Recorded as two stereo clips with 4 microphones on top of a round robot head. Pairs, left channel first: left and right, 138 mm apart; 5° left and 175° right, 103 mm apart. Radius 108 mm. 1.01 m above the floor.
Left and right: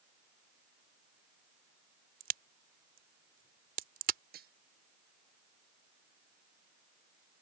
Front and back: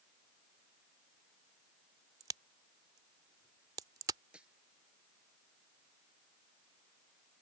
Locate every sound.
2.2 s a crack: 110° right
4.3 s cutlery clinking: 90° right